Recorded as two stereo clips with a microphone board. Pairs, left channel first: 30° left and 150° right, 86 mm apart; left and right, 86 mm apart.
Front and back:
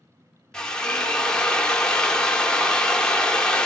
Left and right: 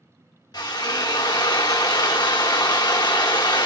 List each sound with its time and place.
0.5 s a drill: 105° left, 0.8 m